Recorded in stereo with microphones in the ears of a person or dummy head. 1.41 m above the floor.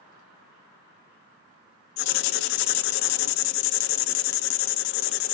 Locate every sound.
2.0 s writing: 70° left (ahead or behind), 0.5 m